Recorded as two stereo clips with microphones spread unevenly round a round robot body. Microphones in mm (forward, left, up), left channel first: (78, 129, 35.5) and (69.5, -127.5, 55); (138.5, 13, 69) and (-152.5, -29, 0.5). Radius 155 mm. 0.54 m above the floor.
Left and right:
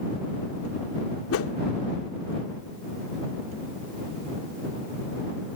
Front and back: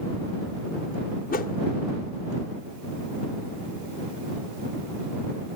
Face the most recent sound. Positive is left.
turn(degrees=75)